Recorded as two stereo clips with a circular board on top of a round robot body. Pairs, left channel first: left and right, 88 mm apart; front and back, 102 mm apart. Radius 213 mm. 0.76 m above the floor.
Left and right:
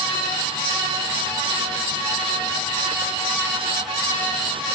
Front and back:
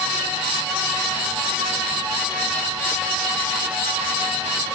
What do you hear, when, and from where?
Only background noise.